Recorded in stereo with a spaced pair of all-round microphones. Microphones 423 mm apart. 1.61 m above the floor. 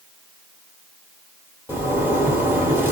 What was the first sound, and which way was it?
A zipper, 5° right (ahead or behind).